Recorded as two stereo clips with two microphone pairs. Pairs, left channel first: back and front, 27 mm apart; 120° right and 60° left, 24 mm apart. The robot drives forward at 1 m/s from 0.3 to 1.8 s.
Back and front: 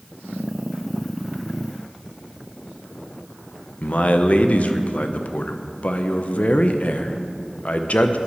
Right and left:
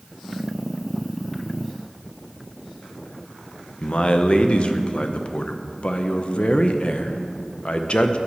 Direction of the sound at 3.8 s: 155° right.